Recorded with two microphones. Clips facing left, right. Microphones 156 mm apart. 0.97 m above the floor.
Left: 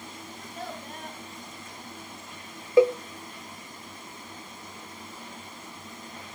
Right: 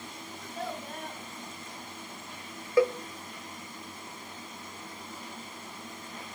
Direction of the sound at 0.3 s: Centre (ahead or behind).